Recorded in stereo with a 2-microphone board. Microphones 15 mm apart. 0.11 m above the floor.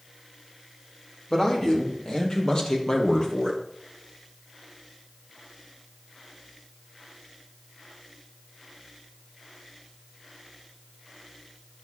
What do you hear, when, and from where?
1.3 s a man speaking: 40° left (ahead or behind), 4 m; by 3.6 s 50° left (ahead or behind), 1.9 m